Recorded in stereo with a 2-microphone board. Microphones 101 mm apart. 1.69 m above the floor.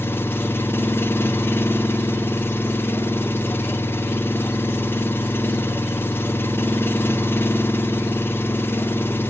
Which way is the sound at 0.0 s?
20° left (ahead or behind).